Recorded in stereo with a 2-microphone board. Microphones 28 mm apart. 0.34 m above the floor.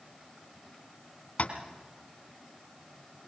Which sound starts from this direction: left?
Tapping, at 1.4 s.